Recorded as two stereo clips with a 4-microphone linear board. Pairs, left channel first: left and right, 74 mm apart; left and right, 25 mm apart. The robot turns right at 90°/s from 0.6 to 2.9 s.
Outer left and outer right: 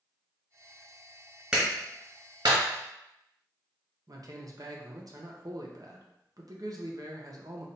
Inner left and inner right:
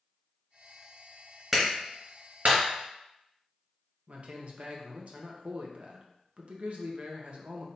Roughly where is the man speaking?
Right.